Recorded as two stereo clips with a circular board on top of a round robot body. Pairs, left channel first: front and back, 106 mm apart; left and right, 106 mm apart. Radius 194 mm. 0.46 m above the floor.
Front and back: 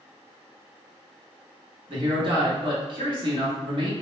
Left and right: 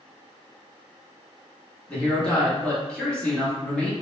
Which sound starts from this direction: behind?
A man speaking, at 1.9 s.